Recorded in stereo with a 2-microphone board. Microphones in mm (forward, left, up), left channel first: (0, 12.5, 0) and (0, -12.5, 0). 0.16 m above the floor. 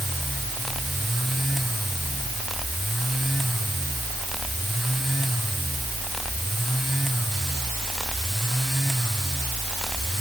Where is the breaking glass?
I don't hear breaking glass.